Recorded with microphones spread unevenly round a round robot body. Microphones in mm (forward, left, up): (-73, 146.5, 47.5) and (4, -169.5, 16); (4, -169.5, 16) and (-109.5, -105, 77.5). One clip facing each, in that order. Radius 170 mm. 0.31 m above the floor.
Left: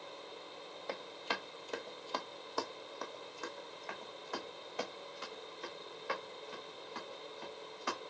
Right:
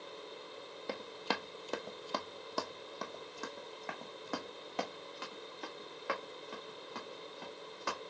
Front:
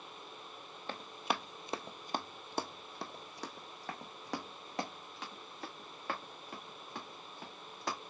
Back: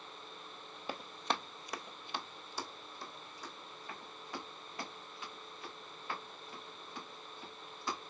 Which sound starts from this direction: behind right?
Running footsteps, at 0.9 s.